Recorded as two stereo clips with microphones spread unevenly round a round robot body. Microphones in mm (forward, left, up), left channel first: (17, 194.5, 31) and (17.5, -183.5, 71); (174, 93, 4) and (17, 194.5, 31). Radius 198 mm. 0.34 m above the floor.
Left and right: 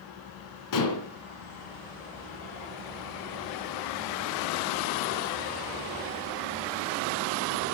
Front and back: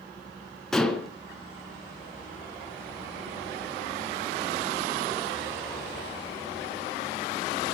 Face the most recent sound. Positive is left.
turn(degrees=55)